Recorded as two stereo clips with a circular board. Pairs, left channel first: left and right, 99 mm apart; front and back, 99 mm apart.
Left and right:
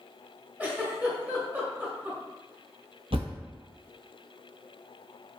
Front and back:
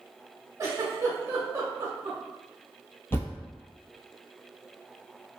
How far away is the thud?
About 0.9 m.